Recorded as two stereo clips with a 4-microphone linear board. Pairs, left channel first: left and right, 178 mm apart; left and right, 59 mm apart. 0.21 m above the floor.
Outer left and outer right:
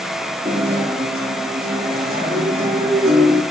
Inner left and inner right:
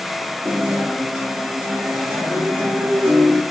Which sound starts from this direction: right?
A guitar, at 0.5 s.